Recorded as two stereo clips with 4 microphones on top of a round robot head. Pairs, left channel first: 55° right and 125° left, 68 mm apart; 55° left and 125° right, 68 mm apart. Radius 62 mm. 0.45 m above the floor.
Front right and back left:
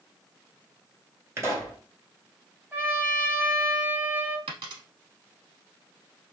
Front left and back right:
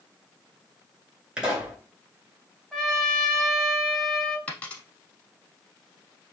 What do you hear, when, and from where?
1.4 s a pop: 165° left, 1.8 m
2.7 s a trumpet: 135° left, 0.8 m
4.5 s a dropped coin: 130° left, 0.7 m